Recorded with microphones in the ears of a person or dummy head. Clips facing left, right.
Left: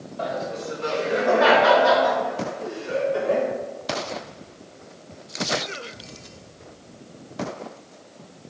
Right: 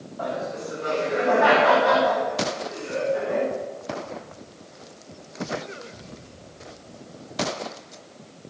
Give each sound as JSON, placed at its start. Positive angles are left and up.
{"t": 0.2, "sound": "laughter", "side_deg": 50, "distance_m": 7.0}